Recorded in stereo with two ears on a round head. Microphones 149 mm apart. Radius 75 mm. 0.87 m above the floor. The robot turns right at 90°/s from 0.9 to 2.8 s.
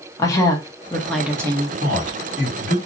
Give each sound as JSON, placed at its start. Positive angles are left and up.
{"t": 0.2, "sound": "a woman speaking", "azimuth_deg": 155, "distance_m": 0.8}
{"t": 1.8, "sound": "a man speaking", "azimuth_deg": -70, "distance_m": 1.5}